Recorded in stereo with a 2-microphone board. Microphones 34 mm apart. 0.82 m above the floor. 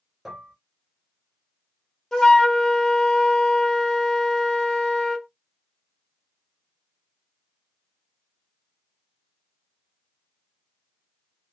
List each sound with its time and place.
0.2 s dishes clattering: centre (ahead or behind), 1.9 m
2.1 s a flute: 15° left (ahead or behind), 0.9 m